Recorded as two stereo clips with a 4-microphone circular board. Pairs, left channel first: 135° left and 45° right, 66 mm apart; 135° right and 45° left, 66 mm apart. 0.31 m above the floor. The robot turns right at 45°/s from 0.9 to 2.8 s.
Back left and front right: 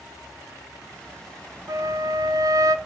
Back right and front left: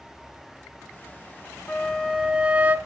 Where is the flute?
60° right, 0.6 m; by 2.8 s 15° right, 0.6 m.